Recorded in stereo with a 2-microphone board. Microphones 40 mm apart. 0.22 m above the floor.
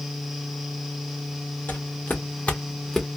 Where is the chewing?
I don't hear chewing.